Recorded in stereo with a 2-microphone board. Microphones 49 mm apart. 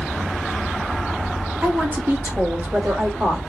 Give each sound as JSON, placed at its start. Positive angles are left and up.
{"t": 1.6, "sound": "a woman speaking", "side_deg": -35, "distance_m": 1.2}